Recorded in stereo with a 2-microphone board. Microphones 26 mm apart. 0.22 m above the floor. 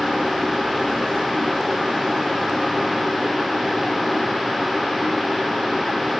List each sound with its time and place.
Only background noise.